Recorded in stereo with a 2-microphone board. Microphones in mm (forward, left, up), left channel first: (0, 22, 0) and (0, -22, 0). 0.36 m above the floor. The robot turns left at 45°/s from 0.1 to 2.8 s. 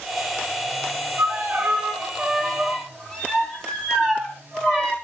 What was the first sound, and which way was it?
A violin, 125° right.